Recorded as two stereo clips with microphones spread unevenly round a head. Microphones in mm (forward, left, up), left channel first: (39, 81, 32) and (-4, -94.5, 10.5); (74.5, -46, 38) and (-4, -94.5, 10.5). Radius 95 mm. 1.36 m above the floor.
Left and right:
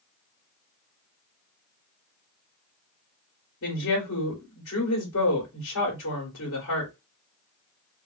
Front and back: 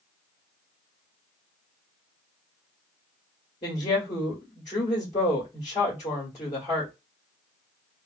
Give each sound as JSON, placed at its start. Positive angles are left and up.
{"t": 3.6, "sound": "a woman speaking", "azimuth_deg": 70, "distance_m": 1.4}